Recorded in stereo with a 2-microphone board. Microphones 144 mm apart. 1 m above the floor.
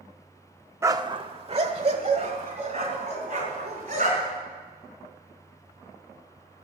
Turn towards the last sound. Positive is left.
turn(degrees=-50)  # may be behind; listen again after turning